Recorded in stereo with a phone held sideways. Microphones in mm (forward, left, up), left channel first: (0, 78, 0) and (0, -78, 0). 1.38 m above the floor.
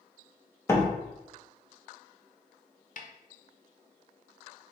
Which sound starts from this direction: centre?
A door slam, at 0.7 s.